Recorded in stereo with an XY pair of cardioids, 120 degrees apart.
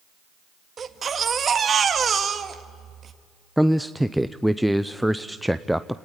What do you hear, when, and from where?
0.8 s a baby crying: 35° right, 1.8 m
3.6 s a man speaking: straight ahead, 0.6 m